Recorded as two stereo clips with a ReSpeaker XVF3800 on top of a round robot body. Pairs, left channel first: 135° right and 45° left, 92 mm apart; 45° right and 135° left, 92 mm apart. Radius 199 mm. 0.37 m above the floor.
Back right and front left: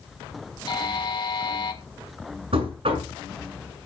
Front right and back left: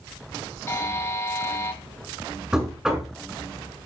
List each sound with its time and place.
0.7 s a buzzer: 105° right, 2 m
2.5 s knocking: 50° left, 6 m